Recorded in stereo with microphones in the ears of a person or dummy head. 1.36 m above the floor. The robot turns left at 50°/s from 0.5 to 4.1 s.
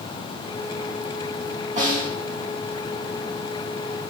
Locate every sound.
1.8 s a snare drum: 20° right (ahead or behind), 3.5 m; by 2.1 s 5° right (ahead or behind), 3.5 m